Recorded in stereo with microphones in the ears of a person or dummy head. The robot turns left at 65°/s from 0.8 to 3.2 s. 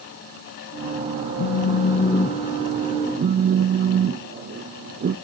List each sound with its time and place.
1.4 s a phone buzzing: 70° left, 0.5 m; by 5.2 s 45° right, 0.5 m